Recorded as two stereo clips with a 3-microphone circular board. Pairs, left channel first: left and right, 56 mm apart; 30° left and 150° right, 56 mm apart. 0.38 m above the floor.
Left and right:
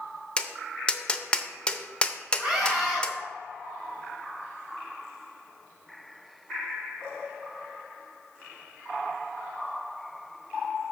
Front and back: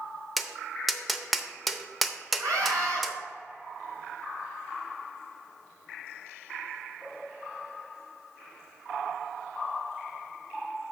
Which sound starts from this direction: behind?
A scream, at 2.4 s.